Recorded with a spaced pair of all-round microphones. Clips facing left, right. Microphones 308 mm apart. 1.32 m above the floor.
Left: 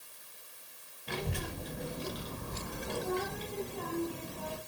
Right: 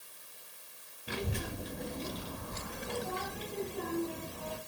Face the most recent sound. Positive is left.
turn(degrees=45)  # may be behind; listen again after turning